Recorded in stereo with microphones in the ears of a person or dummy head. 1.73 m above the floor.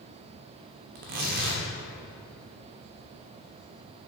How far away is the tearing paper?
About 1.0 m.